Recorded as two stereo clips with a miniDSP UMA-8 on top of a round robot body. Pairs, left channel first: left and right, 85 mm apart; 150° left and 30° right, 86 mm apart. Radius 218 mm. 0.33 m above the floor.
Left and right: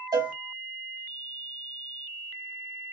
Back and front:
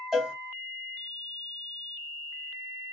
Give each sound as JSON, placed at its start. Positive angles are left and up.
{"t": 0.1, "sound": "a cowbell", "azimuth_deg": -115, "distance_m": 2.0}